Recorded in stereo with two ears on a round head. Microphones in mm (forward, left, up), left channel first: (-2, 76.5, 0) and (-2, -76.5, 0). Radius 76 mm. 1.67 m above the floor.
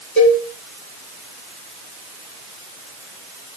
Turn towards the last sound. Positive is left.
turn(degrees=45)  # may be behind; listen again after turning